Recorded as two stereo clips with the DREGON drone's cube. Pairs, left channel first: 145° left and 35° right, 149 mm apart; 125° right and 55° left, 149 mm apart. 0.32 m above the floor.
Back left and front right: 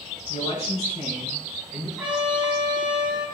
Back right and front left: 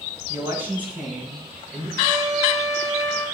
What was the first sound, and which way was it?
A man speaking, 110° left.